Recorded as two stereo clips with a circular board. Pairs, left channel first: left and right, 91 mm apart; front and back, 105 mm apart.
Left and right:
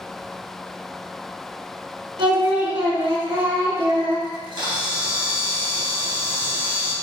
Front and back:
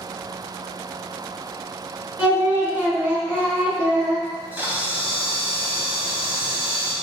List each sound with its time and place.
2.2 s singing: 105° right, 2.5 m
4.3 s a camera shutter: 110° right, 2 m